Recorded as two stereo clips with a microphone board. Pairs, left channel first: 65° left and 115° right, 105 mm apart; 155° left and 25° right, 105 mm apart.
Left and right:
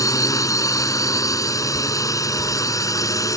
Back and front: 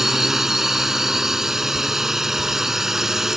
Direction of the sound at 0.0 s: 60° left.